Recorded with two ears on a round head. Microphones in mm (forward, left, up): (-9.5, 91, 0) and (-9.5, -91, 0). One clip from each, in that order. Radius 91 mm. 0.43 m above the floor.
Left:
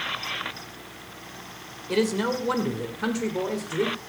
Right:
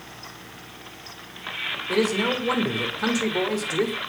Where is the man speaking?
5° left (ahead or behind), 1.9 m; by 4.0 s 35° right (ahead or behind), 1.7 m.